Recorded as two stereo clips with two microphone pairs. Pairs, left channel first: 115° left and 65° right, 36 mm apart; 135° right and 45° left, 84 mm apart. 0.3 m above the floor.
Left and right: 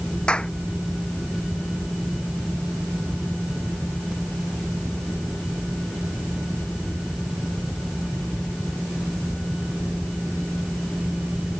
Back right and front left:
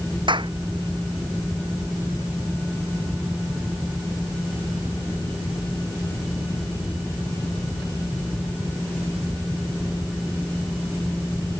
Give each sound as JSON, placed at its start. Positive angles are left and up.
{"t": 0.3, "sound": "a clap", "azimuth_deg": 55}